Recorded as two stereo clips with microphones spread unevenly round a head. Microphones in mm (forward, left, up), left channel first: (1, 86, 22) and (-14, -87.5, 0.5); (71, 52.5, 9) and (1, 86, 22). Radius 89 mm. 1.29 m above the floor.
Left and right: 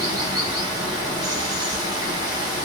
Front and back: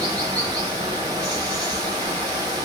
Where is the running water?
165° right, 1.0 m.